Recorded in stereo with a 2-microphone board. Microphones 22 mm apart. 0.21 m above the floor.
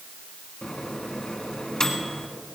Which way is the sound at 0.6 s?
30° left (ahead or behind).